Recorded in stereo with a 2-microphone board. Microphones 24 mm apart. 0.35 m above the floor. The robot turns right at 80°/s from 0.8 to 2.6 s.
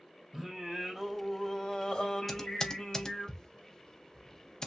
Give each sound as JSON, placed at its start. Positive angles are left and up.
{"t": 0.3, "sound": "singing", "azimuth_deg": -45, "distance_m": 1.7}
{"t": 2.3, "sound": "typing on a keyboard", "side_deg": 0, "distance_m": 0.6}